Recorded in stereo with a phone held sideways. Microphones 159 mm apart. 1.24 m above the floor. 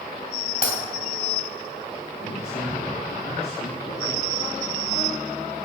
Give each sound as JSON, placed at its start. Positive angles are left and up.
{"t": 0.6, "sound": "breaking glass", "side_deg": 65, "distance_m": 3.0}
{"t": 2.1, "sound": "a man speaking", "side_deg": 75, "distance_m": 3.0}